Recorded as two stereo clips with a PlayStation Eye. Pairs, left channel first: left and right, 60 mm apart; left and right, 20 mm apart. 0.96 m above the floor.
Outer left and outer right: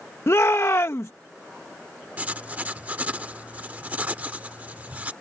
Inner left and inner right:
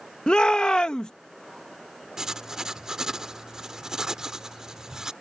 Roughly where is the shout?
Left.